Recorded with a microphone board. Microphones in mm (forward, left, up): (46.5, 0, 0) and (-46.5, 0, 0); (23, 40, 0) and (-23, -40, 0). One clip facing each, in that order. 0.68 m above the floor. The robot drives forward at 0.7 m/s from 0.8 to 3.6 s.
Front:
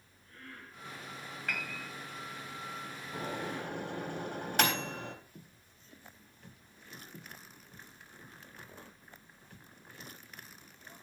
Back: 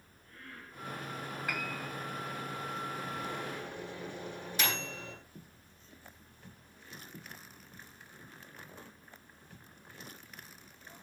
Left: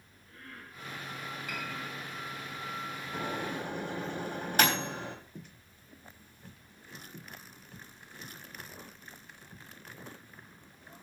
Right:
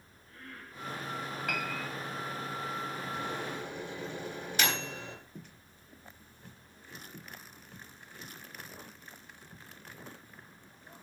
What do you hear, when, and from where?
1.5 s a piano: 100° right, 3 m; by 1.9 s 105° right, 3 m
3.1 s a microwave: 20° left, 4 m; by 5.2 s 25° left, 4 m